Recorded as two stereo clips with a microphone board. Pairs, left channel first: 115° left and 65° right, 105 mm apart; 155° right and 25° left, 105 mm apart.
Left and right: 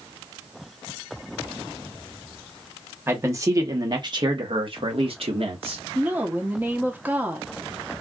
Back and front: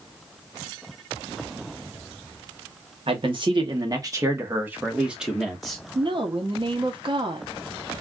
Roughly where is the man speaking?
Ahead.